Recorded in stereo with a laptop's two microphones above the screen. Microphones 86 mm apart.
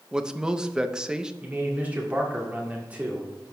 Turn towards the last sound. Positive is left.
turn(degrees=-15)  # may be behind; listen again after turning